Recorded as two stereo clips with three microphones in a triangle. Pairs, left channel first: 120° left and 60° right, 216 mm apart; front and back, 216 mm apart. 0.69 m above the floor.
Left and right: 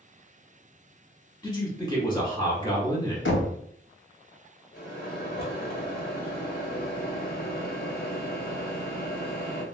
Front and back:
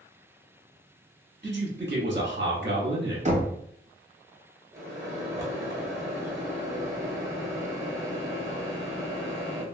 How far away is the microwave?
About 1.2 m.